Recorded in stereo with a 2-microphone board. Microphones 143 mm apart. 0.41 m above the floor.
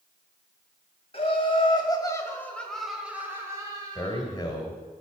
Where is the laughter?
45° left (ahead or behind), 2 m; by 4.3 s 35° right (ahead or behind), 2 m.